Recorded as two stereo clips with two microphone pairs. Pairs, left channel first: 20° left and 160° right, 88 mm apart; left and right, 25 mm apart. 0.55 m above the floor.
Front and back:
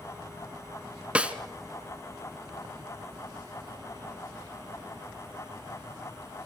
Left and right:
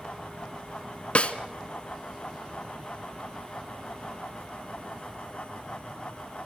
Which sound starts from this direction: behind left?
A snare drum, at 1.1 s.